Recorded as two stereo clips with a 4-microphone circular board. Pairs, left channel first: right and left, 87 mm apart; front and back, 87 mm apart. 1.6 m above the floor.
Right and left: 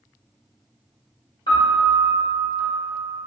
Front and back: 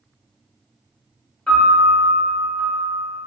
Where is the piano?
85° right, 1.0 m.